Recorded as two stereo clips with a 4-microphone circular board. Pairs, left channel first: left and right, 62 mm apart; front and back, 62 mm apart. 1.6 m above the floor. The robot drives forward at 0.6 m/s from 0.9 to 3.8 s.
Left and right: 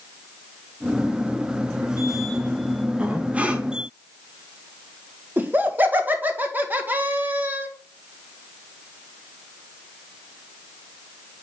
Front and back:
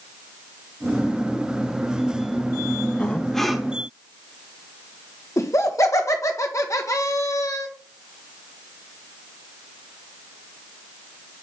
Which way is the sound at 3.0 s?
40° right.